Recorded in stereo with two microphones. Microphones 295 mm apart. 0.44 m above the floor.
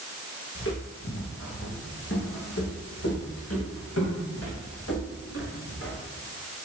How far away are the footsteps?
About 3.5 m.